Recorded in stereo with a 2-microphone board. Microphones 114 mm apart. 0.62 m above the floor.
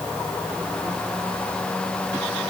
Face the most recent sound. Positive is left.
No sound to turn to.